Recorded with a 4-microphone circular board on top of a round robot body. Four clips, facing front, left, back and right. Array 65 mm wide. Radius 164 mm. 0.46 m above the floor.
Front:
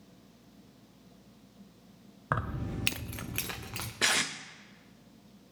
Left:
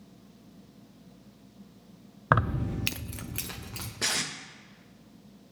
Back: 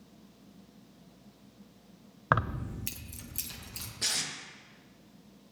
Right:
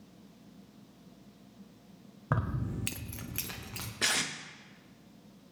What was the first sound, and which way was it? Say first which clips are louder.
Keys jangling: left 8 dB, back 4 dB; 120° left.